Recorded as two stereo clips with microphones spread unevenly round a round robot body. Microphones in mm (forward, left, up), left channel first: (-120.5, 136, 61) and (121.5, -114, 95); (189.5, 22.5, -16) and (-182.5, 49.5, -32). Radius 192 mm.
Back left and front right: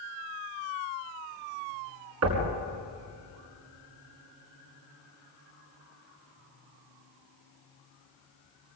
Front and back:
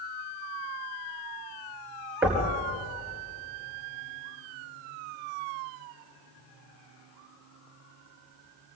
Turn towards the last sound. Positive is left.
turn(degrees=-95)